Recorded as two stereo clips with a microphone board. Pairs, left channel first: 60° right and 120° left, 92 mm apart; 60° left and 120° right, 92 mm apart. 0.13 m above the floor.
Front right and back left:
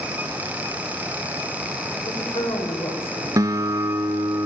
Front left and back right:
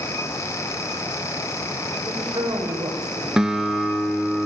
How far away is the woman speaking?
About 7 m.